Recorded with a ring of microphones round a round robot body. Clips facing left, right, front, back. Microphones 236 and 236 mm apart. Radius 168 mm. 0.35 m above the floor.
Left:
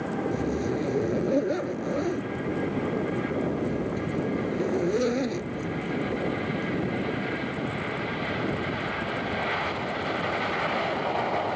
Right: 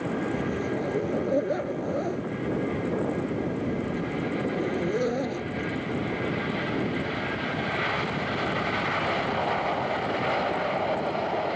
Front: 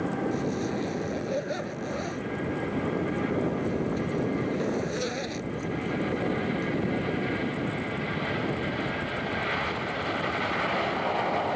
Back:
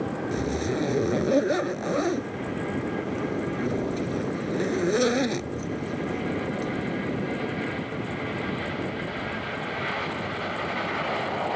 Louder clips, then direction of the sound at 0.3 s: Left 1 dB, back 2 dB; 160° left.